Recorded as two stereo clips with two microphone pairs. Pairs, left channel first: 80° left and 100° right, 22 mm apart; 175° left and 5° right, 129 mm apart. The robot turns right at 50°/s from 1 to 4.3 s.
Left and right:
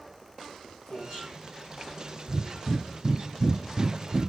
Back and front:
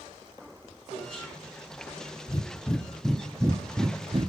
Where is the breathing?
140° right, 0.5 m; by 4.3 s 35° right, 0.5 m.